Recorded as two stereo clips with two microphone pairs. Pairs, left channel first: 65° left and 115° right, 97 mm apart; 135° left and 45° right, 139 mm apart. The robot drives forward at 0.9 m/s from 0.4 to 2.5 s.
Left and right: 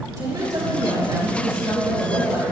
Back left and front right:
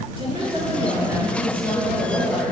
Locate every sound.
0.2 s a woman speaking: 80° right, 2.0 m; by 2.5 s 135° right, 2.5 m